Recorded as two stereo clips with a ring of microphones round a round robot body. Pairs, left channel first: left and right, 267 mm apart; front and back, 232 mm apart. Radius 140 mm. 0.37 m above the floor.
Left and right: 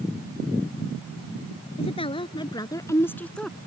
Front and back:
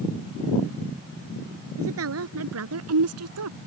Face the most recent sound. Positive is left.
turn(degrees=180)